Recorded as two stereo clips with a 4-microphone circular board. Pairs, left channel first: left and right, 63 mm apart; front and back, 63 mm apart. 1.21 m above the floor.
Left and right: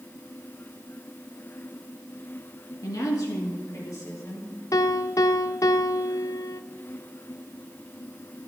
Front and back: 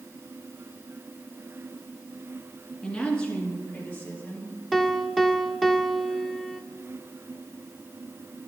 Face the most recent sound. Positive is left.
turn(degrees=85)